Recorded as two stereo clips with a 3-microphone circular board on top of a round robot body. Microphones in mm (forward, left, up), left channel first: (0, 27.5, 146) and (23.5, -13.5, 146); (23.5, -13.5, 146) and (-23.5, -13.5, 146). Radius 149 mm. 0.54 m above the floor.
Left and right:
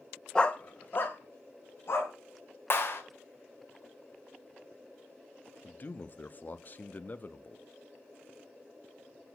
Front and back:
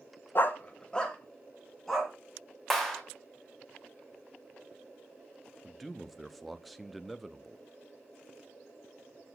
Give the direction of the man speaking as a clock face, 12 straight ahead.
9 o'clock.